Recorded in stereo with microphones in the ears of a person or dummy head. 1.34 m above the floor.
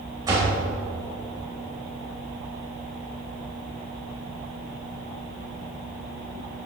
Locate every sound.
0.2 s a door slam: 15° right (ahead or behind), 4 m